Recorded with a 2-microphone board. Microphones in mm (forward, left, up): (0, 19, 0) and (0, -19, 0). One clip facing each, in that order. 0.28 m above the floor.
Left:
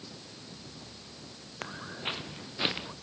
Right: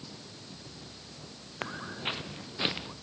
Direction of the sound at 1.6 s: 20° right (ahead or behind).